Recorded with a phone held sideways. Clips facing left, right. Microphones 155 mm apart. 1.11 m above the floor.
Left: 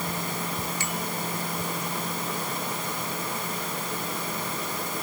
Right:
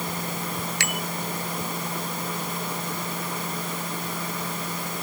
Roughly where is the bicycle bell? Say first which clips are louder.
Right 1 dB; right.